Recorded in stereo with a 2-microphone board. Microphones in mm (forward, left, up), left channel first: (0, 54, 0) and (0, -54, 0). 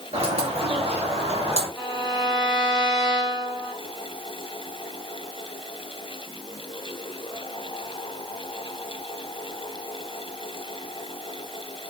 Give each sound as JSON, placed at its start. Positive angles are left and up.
{"t": 0.1, "sound": "a bird", "side_deg": -70, "distance_m": 1.9}
{"t": 1.8, "sound": "a violin", "side_deg": -5, "distance_m": 1.3}